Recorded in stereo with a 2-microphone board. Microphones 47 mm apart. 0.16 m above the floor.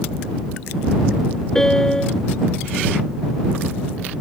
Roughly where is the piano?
Centre.